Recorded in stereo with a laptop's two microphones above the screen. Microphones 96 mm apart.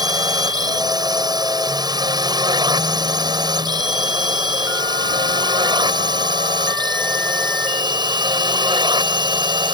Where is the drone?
45° right (ahead or behind); by 9.7 s 55° right (ahead or behind).